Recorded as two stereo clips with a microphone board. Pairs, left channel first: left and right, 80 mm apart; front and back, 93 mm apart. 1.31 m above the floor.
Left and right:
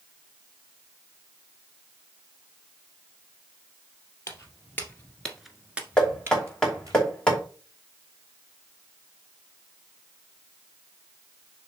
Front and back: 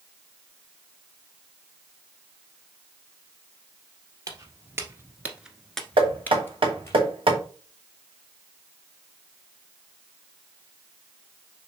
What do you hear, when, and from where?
4.3 s footsteps: 135° left, 2 m; by 7.0 s 55° right, 2 m
6.0 s knocking: 170° left, 2.5 m